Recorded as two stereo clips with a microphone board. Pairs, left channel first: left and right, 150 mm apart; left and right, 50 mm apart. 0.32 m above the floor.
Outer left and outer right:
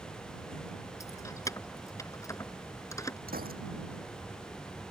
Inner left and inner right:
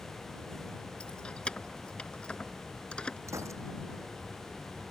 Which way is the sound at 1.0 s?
20° left (ahead or behind).